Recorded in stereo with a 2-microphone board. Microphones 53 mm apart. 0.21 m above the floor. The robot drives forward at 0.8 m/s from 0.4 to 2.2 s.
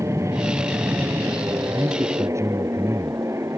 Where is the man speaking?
65° right (ahead or behind); by 3.2 s 70° right (ahead or behind).